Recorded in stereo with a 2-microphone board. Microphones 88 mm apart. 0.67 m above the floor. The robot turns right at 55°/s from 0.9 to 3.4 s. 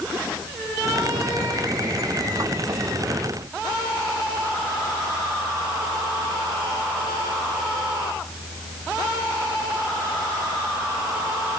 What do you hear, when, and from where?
Only background noise.